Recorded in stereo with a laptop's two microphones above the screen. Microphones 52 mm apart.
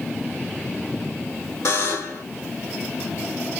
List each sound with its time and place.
1.6 s a buzzer: 70° left (ahead or behind), 1.2 m